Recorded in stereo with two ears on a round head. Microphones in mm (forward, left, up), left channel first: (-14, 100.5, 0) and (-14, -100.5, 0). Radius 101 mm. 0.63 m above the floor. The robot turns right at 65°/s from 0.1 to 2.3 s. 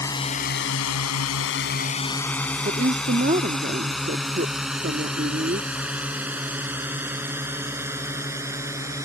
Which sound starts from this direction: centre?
A drone, at 0.0 s.